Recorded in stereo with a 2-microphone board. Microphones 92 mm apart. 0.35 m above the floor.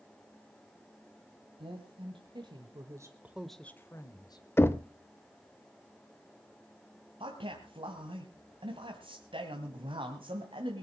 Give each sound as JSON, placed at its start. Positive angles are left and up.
{"t": 1.6, "sound": "a woman speaking", "side_deg": -70, "distance_m": 2.5}
{"t": 4.6, "sound": "knocking", "side_deg": 25, "distance_m": 0.6}
{"t": 7.2, "sound": "a man speaking", "side_deg": -65, "distance_m": 2.0}